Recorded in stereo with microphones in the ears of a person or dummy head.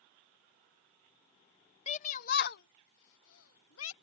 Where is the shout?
40° left (ahead or behind); by 3.9 s 85° left.